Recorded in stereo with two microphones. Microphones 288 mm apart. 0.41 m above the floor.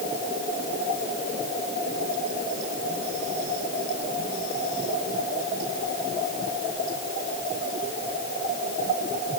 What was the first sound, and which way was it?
Only background noise.